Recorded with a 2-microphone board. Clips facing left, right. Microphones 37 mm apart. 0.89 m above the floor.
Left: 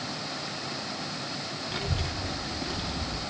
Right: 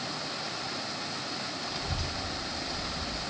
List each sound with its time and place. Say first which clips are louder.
1.7 s a child speaking: left 2 dB; 35° left (ahead or behind), 1.8 m; by 3.2 s 90° left, 1.2 m